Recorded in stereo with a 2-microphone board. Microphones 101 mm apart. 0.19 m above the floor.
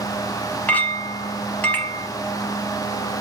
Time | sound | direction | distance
0.7 | a clink | 15° left (ahead or behind) | 1.0 m